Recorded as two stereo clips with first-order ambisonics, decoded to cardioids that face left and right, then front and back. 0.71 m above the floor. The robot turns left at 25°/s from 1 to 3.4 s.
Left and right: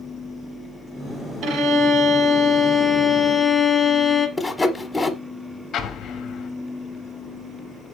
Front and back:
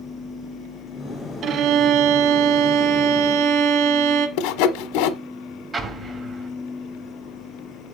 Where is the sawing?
5° left, 0.7 m.